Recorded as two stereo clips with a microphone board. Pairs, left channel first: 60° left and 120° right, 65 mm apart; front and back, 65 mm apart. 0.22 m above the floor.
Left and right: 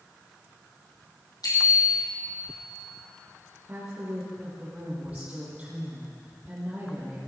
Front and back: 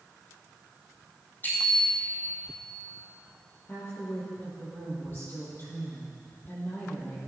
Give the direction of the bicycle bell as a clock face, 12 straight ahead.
10 o'clock.